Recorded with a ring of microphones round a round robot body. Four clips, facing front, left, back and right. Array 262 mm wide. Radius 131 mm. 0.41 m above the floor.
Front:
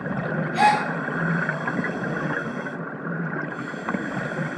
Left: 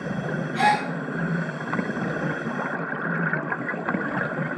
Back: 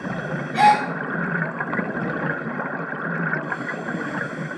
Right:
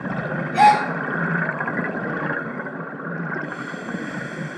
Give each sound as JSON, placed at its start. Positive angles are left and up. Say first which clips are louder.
{"t": 0.5, "sound": "a gasp", "louder": "right 8 dB, back 3 dB", "azimuth_deg": -105, "distance_m": 1.1}